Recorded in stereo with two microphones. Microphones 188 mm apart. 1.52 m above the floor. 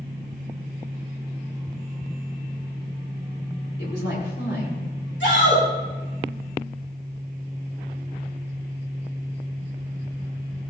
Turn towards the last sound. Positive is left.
turn(degrees=75)  # may be behind; listen again after turning